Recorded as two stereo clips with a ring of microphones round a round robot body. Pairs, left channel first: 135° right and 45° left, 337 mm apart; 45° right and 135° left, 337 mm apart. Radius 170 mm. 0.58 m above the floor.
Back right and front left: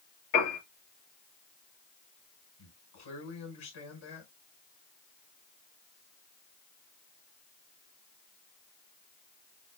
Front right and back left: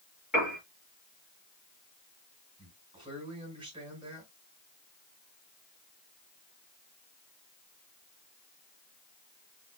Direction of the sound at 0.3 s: 135° right.